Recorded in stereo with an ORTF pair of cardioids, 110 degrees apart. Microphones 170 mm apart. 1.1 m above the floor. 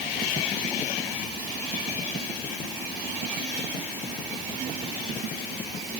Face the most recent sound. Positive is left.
No sound to turn to.